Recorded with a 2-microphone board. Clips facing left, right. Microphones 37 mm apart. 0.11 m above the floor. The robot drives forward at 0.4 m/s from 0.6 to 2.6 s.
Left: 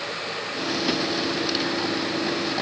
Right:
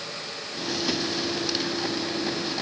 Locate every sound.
Only background noise.